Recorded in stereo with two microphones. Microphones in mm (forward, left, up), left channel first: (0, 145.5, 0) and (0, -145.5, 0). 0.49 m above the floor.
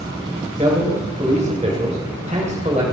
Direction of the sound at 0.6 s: 25° right (ahead or behind).